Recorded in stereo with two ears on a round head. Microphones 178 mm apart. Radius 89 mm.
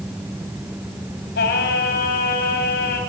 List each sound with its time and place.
1.4 s singing: 55° left (ahead or behind), 3.5 m